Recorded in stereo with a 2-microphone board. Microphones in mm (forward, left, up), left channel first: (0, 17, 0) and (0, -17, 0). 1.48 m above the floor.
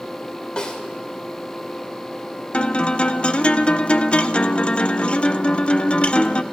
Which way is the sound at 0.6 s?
30° left (ahead or behind).